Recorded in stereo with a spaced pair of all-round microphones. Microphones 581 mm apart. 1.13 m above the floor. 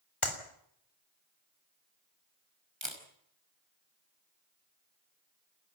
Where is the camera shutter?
50° right (ahead or behind), 5 m.